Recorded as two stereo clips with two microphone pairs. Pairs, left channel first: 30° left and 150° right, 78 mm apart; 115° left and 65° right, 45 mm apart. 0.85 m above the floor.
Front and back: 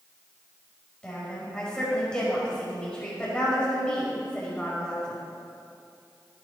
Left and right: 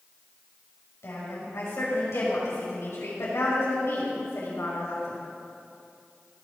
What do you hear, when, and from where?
1.0 s a woman speaking: 105° left, 5.5 m